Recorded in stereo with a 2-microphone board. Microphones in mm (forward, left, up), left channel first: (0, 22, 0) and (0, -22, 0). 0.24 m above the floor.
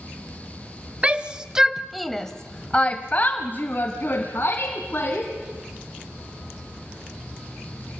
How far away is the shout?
About 1.2 m.